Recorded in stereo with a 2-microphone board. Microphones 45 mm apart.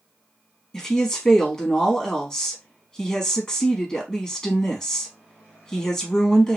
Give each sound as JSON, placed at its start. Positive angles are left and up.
{"t": 0.7, "sound": "a woman speaking", "side_deg": 15, "distance_m": 1.3}